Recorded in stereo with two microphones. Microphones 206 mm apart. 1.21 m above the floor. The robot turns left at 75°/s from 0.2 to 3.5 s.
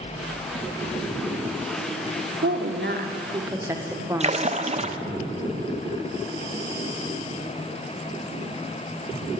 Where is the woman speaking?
85° right, 0.9 m; by 4.7 s 165° right, 0.9 m.